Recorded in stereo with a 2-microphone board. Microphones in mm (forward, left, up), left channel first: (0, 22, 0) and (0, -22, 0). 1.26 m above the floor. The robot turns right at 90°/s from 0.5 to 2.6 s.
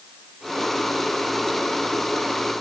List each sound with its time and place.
Only background noise.